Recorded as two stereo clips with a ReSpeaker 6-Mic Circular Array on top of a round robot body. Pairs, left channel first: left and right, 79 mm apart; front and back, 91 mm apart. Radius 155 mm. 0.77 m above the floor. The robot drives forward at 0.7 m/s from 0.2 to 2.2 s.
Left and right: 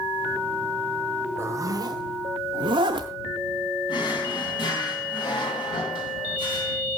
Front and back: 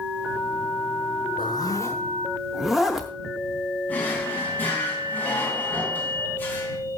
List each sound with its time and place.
1.4 s a zipper: 35° right, 0.7 m; by 3.1 s 95° right, 0.5 m
3.9 s a drawer: 70° left, 2.5 m